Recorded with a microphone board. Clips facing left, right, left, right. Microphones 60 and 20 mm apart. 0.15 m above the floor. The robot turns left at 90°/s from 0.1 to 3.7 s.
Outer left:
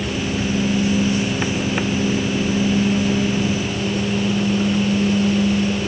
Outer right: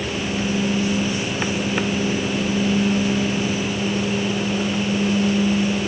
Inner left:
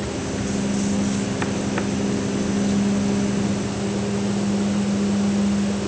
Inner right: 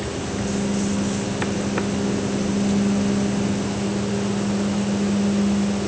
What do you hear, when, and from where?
Only background noise.